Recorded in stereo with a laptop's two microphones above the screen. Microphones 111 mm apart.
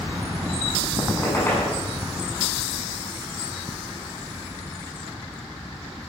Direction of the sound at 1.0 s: 20° left (ahead or behind).